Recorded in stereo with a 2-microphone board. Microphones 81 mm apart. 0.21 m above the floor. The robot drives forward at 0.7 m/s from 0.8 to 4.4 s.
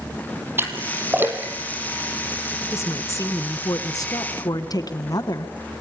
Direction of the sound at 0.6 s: 30° right (ahead or behind).